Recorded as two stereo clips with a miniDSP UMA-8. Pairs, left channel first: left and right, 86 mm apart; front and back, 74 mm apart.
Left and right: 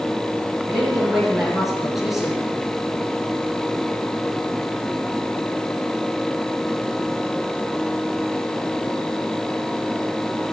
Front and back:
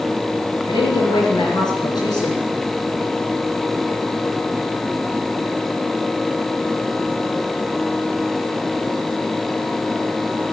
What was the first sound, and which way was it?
A woman speaking, straight ahead.